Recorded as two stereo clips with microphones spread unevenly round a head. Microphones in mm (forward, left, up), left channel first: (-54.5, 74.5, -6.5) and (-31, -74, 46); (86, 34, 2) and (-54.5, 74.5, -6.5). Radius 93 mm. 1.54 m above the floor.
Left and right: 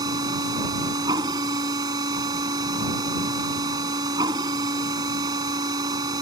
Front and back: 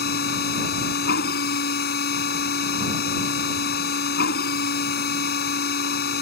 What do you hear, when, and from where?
0.0 s a machine running: 10° right